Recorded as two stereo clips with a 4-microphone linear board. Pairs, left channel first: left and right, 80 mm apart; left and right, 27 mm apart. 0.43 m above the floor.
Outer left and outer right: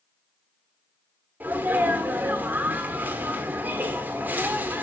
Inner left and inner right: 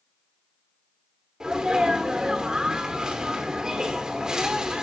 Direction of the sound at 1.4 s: 25° right (ahead or behind).